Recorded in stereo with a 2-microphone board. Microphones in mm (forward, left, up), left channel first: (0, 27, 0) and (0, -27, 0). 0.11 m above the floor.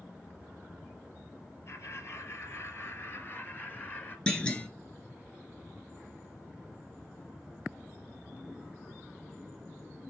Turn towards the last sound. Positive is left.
turn(degrees=20)  # may be behind; listen again after turning